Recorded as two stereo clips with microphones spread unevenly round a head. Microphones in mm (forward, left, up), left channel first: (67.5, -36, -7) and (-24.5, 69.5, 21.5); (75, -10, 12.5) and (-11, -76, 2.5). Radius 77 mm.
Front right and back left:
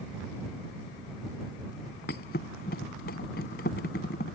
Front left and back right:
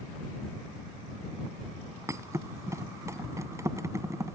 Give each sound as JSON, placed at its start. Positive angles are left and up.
{"t": 2.1, "sound": "a thud", "azimuth_deg": -80}